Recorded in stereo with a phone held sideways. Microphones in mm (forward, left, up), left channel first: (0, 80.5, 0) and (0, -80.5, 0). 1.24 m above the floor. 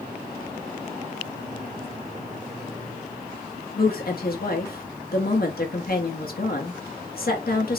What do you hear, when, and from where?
3.8 s a woman speaking: 70° left (ahead or behind), 1.3 m